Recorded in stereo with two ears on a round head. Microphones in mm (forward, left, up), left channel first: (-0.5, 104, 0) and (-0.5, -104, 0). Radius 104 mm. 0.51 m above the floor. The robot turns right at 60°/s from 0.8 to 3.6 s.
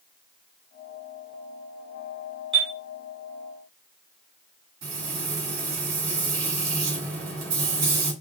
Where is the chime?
25° right (ahead or behind), 1.4 m; by 2.7 s 15° right (ahead or behind), 1.4 m.